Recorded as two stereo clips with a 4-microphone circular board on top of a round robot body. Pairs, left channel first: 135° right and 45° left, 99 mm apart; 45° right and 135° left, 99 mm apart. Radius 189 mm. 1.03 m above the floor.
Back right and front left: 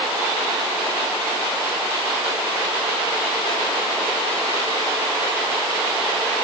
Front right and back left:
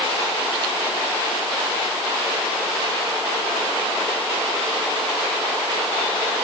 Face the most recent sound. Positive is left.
No sound to turn to.